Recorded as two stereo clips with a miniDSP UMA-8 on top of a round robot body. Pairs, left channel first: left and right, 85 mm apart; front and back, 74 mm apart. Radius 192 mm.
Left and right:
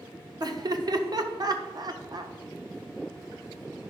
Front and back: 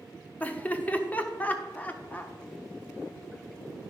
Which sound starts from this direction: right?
Laughter, at 0.4 s.